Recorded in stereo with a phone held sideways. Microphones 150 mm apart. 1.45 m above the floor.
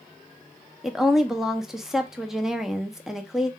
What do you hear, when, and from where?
0.8 s a woman speaking: 5° right (ahead or behind), 0.7 m